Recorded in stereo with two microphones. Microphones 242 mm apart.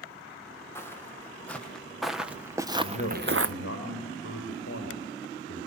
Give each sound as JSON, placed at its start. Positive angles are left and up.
{"t": 0.8, "sound": "footsteps", "side_deg": 10, "distance_m": 3.0}
{"t": 2.8, "sound": "a man speaking", "side_deg": 60, "distance_m": 4.5}